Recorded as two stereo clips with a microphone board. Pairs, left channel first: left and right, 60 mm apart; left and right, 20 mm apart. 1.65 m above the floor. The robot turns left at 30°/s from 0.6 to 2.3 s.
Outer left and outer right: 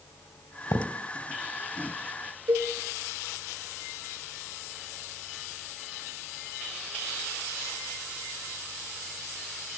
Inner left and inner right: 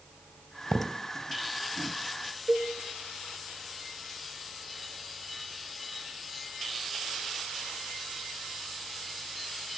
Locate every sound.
0.7 s a thud: 60° left (ahead or behind), 2.5 m
2.5 s a cowbell: 60° right (ahead or behind), 1.4 m